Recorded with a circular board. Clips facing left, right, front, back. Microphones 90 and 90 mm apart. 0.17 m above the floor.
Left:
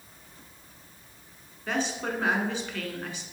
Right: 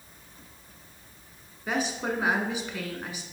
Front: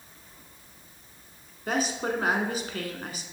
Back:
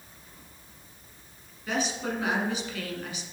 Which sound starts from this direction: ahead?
A woman speaking, at 1.7 s.